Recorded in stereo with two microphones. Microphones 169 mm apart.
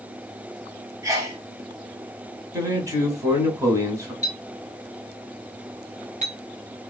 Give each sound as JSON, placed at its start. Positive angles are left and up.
{"t": 1.0, "sound": "a sneeze", "side_deg": -20, "distance_m": 1.0}
{"t": 2.5, "sound": "a man speaking", "side_deg": -20, "distance_m": 1.2}
{"t": 4.2, "sound": "a clink", "side_deg": -45, "distance_m": 1.7}